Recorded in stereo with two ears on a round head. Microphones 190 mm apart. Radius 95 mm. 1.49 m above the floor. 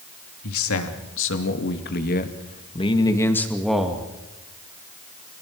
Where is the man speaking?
75° left (ahead or behind), 3 m; by 4.1 s 5° right (ahead or behind), 2.5 m.